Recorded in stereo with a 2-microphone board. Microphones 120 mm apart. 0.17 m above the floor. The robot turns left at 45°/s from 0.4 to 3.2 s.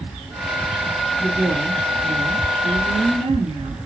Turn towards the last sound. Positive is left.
turn(degrees=-100)